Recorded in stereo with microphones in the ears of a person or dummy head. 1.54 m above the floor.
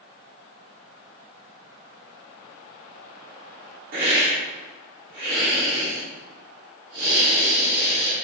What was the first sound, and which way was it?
A hiss, 70° right (ahead or behind).